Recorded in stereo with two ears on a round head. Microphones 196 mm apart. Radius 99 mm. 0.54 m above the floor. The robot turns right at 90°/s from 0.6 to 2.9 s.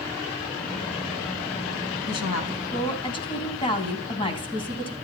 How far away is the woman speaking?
About 3.5 m.